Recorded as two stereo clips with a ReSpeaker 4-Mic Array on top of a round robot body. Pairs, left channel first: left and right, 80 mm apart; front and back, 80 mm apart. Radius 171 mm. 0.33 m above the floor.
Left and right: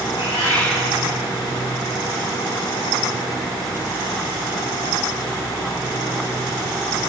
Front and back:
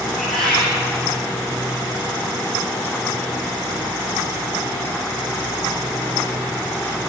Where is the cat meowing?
85° left, 4.5 m.